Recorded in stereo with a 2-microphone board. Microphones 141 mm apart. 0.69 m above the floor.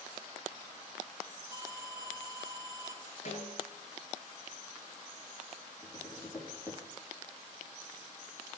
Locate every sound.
1.5 s an alarm: 25° right (ahead or behind), 8 m
3.2 s a snare drum: 50° left (ahead or behind), 10 m
5.8 s tapping: 20° left (ahead or behind), 8 m